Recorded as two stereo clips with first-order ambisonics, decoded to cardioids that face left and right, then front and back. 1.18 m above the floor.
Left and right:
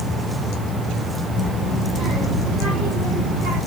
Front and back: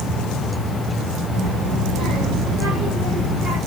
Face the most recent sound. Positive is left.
turn(degrees=-115)